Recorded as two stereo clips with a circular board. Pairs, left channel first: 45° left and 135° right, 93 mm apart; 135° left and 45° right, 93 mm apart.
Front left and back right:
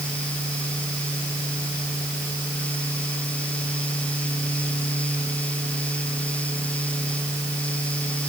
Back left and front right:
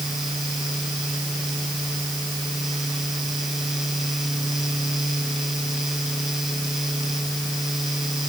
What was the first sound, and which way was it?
Only background noise.